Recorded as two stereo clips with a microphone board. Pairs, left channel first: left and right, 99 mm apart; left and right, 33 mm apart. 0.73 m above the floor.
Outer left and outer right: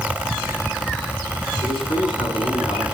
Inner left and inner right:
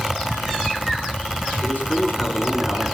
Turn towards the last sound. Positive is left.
turn(degrees=75)  # may be behind; listen again after turning